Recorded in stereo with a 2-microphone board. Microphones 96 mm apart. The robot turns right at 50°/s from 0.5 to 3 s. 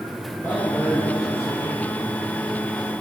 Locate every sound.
0.4 s a man speaking: 155° left, 5.5 m; by 1.8 s 135° right, 5.5 m